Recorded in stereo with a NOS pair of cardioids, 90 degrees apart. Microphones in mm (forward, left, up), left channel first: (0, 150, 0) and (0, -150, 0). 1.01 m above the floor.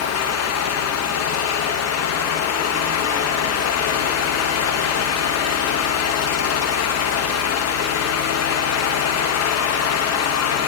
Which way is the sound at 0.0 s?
60° left.